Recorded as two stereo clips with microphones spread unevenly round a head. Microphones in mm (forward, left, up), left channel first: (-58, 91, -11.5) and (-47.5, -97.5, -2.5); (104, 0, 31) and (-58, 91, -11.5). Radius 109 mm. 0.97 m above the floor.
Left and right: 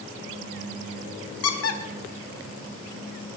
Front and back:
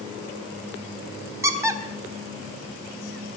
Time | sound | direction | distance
1.4 | a squeak | 75° left | 1.5 m